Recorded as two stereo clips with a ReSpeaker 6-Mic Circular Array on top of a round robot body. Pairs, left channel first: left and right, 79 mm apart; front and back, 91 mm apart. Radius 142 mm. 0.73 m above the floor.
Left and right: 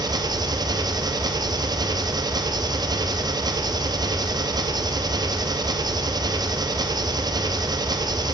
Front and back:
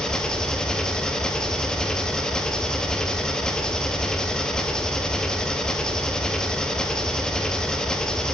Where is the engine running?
80° right, 0.7 m.